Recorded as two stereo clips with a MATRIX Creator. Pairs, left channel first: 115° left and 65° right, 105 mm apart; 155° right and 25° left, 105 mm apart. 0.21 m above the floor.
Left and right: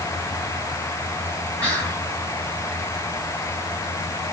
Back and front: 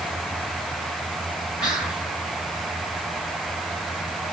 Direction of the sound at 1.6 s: 95° left.